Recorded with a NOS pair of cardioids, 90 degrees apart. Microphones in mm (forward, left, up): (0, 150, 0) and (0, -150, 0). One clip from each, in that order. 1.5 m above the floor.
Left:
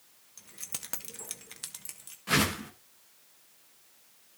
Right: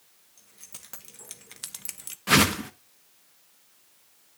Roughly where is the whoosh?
Ahead right.